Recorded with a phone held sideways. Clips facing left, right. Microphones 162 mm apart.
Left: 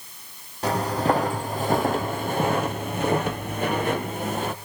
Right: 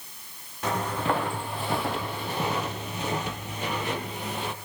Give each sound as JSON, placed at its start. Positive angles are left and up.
{"t": 0.6, "sound": "footsteps", "side_deg": 35, "distance_m": 2.0}